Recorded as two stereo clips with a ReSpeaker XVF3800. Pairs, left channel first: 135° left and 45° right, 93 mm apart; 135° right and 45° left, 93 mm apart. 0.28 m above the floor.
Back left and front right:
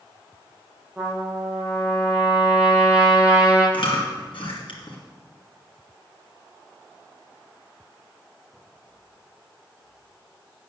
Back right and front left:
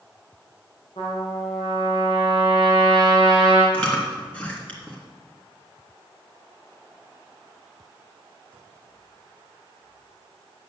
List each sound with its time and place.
1.0 s a trumpet: 125° right, 4 m
3.7 s chewing: 150° left, 3 m